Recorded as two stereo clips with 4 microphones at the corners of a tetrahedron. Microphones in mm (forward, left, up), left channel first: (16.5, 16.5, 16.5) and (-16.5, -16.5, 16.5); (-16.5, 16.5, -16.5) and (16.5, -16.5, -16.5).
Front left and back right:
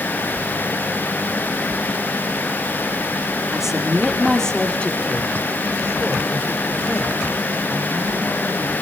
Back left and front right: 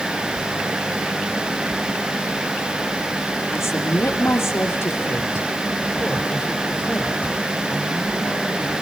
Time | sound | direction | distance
3.5 | a woman speaking | 145° left | 3 m